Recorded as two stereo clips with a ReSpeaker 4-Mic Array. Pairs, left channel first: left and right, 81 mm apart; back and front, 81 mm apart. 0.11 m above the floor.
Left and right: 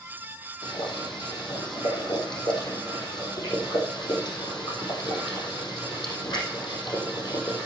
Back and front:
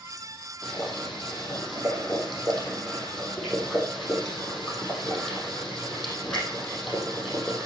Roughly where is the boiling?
Left.